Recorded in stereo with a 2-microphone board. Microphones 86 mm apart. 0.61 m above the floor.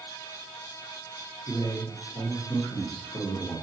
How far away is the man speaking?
About 1.5 m.